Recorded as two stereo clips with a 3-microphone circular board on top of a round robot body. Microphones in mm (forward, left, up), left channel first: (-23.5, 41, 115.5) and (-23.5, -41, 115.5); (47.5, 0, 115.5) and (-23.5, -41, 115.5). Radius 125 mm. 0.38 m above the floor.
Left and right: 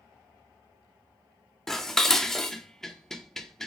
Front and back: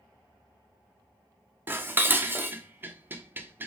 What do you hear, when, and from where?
1.7 s dishes clattering: 170° left, 0.6 m